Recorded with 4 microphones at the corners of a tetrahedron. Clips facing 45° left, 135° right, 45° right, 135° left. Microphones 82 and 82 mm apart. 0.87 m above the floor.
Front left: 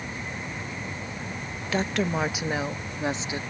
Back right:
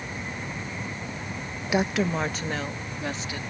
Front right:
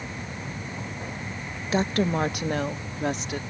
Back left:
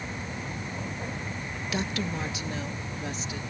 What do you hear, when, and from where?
1.7 s a woman speaking: 70° right; by 3.4 s 20° right